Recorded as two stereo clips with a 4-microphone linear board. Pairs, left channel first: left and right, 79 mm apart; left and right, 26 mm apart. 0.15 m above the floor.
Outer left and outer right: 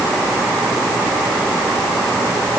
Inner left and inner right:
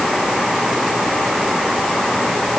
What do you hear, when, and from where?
Only background noise.